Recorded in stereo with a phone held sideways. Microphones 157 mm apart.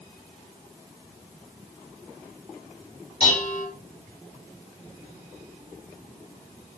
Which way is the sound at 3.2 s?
40° left (ahead or behind).